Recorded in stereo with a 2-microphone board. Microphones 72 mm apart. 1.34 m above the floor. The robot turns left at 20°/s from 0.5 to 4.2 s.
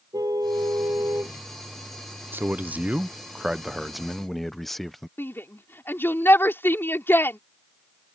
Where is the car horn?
55° right (ahead or behind); by 1.4 s 40° right (ahead or behind).